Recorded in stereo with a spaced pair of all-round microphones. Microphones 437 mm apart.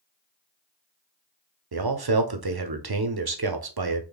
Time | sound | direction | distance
1.7 | a man speaking | 60° right (ahead or behind) | 0.6 m